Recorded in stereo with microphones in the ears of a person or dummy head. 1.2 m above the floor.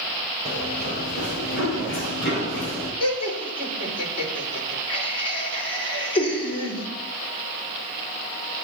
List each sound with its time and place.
0.5 s running footsteps: 55° left (ahead or behind), 3.5 m; by 2.9 s 60° left (ahead or behind), 5 m
3.0 s laughter: 30° left (ahead or behind), 3.5 m